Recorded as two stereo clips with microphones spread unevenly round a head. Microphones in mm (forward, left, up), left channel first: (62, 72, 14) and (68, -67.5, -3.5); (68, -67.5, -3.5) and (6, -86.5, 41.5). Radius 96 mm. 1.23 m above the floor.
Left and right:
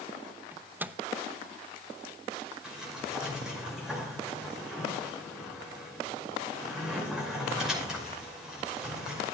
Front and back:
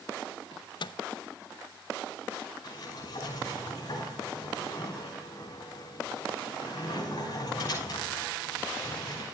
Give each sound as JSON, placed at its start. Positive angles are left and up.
{"t": 0.5, "sound": "a microwave", "azimuth_deg": -5, "distance_m": 0.7}
{"t": 2.6, "sound": "a sliding door", "azimuth_deg": 0, "distance_m": 5.5}